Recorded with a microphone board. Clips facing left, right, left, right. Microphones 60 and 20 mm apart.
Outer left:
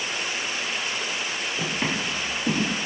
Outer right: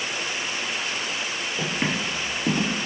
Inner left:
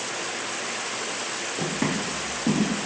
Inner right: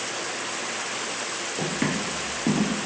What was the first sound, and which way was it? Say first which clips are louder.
Footsteps: outer right 2 dB, even; 15° right (ahead or behind).